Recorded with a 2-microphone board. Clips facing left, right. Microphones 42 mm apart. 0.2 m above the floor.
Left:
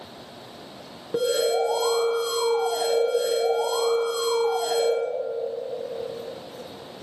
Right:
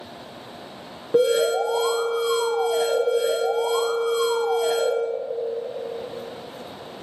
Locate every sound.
1.1 s an alarm: 10° right (ahead or behind), 2 m